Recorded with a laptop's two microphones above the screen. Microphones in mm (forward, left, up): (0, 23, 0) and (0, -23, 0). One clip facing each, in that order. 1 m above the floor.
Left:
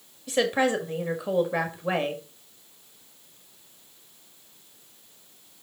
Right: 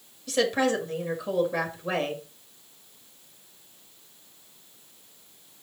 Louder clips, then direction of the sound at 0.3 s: Left 1 dB; 20° left (ahead or behind).